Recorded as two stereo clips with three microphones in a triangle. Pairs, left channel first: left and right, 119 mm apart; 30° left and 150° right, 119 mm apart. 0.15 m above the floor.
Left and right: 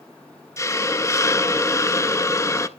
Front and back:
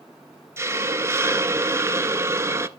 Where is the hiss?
150° left, 0.5 m.